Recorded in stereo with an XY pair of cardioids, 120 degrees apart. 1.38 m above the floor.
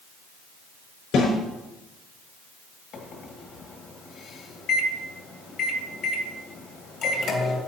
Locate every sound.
1.1 s a snare drum: 65° left, 4.5 m
2.9 s a microwave: 60° left, 2 m